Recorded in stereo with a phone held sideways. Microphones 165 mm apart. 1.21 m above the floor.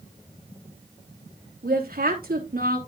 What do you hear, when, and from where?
1.6 s a woman speaking: 65° right (ahead or behind), 3 m